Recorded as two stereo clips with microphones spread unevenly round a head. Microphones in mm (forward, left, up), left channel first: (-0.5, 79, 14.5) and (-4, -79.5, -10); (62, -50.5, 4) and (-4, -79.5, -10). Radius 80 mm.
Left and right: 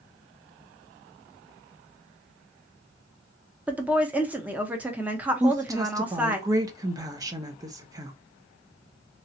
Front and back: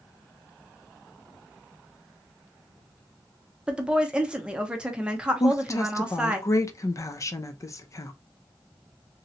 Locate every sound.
3.7 s a woman speaking: 130° right, 0.7 m
5.4 s a woman speaking: 25° right, 0.7 m